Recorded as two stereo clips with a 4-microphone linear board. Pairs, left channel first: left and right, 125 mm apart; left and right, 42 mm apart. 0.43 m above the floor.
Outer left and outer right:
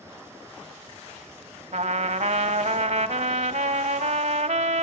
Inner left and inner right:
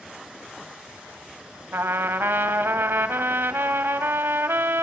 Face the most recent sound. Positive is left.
turn(degrees=-70)  # may be behind; listen again after turning